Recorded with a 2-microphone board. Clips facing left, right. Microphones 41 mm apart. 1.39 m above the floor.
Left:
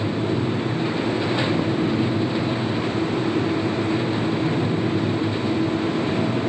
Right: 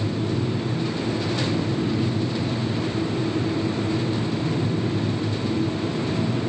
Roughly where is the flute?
No flute in this recording.